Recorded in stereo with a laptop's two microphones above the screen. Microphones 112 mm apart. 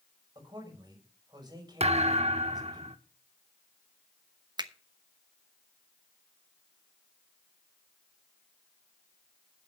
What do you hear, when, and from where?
0.3 s a man speaking: 40° right (ahead or behind), 5.5 m
1.8 s a thud: 70° right (ahead or behind), 0.9 m
4.6 s a finger snap: 40° right (ahead or behind), 0.9 m